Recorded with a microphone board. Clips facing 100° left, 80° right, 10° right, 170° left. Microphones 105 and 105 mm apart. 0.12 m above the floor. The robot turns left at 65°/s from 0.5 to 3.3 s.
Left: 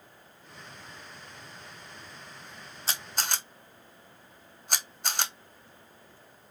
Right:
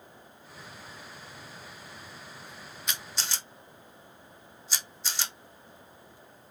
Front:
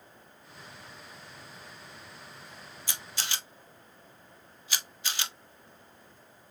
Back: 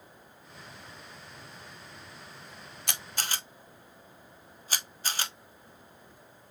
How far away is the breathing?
I don't hear breathing.